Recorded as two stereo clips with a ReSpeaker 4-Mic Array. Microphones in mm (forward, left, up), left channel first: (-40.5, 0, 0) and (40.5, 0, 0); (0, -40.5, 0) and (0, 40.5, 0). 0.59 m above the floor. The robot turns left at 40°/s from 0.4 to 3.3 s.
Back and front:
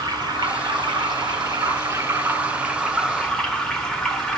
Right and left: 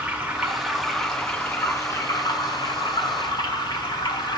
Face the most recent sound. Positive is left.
turn(degrees=-100)